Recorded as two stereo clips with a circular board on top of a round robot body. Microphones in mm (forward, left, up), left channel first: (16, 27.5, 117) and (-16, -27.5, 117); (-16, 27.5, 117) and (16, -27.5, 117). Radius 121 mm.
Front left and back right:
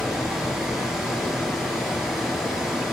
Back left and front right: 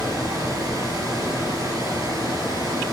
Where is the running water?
40° right, 4 m.